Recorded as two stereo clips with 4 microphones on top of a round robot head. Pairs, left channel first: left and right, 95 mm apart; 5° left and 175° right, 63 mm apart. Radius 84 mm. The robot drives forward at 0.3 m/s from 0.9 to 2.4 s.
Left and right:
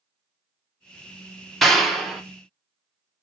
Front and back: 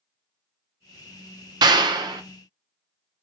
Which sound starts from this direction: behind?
A clap, at 1.6 s.